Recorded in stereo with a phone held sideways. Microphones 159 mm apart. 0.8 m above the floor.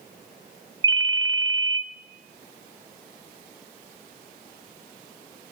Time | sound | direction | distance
0.8 | a ringtone | 30° right (ahead or behind) | 0.9 m